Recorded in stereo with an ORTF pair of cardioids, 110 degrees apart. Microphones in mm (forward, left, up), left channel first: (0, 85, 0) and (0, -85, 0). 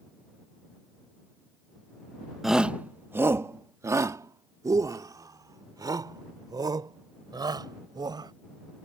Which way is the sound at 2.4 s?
Straight ahead.